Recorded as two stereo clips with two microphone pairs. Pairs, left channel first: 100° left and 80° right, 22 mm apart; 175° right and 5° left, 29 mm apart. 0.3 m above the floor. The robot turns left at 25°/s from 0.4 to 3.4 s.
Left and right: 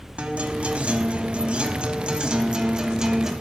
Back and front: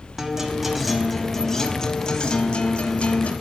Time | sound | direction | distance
0.2 | a guitar | 75° right | 0.7 m